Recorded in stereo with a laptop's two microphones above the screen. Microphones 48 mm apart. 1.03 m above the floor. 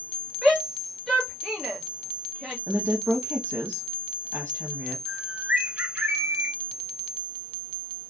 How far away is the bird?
About 1.4 m.